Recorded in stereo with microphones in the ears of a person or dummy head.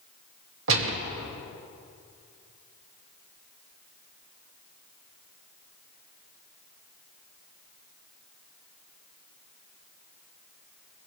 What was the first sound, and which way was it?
A gunshot, 65° right (ahead or behind).